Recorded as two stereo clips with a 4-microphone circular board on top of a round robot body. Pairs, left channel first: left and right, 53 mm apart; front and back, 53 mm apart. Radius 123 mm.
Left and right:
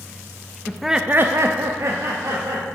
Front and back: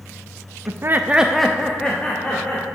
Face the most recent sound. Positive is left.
turn(degrees=-65)